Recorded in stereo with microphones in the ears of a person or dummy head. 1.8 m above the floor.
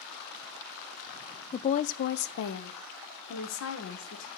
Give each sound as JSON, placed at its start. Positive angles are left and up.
{"t": 1.5, "sound": "a woman speaking", "side_deg": 30, "distance_m": 0.5}